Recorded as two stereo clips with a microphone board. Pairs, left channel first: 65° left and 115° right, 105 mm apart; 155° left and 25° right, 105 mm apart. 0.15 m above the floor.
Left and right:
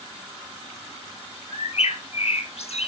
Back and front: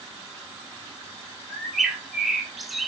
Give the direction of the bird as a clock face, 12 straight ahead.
10 o'clock.